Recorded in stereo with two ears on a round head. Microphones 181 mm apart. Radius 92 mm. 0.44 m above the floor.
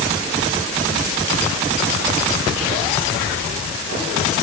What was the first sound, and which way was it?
Only background noise.